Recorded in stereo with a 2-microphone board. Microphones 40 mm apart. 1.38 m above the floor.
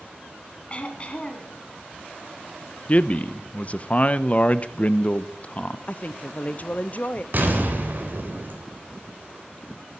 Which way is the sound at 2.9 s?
35° left (ahead or behind).